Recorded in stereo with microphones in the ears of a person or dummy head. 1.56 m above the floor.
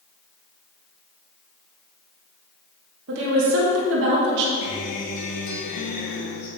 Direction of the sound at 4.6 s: 50° left (ahead or behind).